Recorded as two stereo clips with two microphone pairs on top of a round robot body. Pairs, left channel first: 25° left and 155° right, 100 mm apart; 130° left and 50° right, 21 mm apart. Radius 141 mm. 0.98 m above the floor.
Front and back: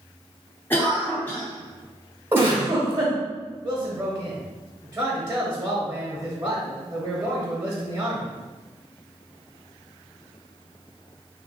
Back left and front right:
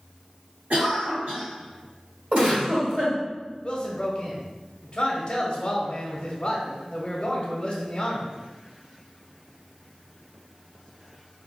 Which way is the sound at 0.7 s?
45° right.